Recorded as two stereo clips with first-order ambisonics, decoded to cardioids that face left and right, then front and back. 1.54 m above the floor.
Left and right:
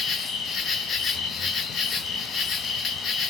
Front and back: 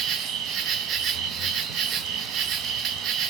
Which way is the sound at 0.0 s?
145° left.